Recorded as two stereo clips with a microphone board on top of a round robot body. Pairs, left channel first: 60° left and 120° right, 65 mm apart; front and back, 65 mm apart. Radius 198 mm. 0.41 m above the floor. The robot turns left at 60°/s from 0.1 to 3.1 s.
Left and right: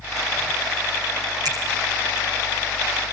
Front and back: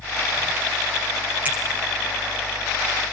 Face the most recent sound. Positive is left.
turn(degrees=150)